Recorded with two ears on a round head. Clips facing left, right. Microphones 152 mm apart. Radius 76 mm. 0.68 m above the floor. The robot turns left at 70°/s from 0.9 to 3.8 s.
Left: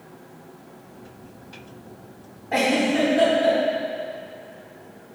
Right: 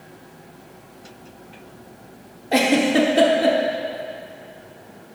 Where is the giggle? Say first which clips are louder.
Right 3 dB; 40° right (ahead or behind), 0.9 m; by 3.6 s 65° right (ahead or behind), 0.9 m.